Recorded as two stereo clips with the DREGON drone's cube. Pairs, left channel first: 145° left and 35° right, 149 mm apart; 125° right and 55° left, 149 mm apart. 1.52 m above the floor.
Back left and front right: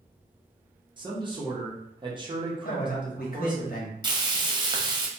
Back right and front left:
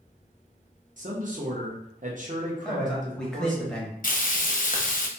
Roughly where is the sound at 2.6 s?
Behind left.